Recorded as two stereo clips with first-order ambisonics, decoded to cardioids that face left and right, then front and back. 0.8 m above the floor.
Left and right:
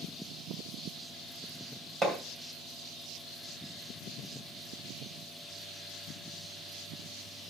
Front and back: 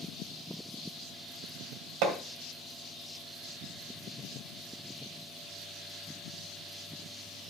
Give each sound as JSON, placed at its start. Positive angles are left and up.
{"t": 2.0, "sound": "hammering", "azimuth_deg": -165, "distance_m": 2.0}